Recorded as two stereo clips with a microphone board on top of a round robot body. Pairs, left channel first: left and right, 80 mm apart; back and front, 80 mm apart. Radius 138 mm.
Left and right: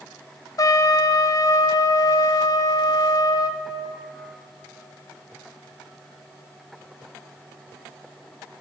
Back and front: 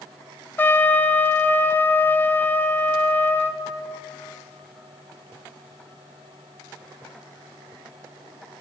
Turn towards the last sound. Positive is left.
turn(degrees=120)